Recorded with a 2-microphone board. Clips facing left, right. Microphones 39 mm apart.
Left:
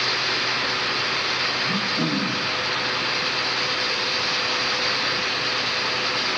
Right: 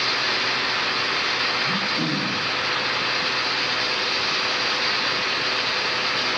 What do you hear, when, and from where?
1.6 s throat clearing: 10° right (ahead or behind), 3.5 m